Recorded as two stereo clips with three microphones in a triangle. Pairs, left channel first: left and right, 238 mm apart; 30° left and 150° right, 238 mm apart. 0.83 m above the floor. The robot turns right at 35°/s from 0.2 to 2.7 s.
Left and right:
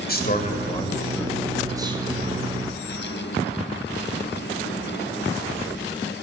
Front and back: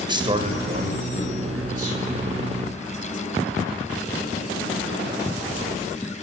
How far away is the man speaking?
About 4 m.